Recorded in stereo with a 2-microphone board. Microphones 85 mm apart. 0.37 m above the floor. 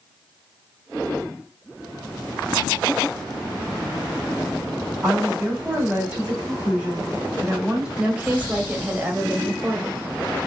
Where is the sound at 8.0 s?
15° right (ahead or behind), 1.6 m.